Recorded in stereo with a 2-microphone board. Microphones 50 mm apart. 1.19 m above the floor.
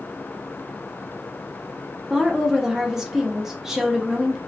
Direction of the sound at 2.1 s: 10° right (ahead or behind).